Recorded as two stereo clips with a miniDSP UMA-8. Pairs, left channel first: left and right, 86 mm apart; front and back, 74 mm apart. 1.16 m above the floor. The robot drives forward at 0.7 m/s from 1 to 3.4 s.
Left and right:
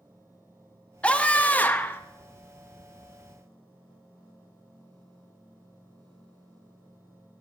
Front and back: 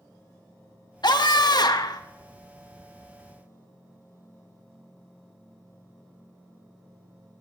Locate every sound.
1.0 s a scream: 15° left, 1.6 m; by 2.0 s 25° left, 0.9 m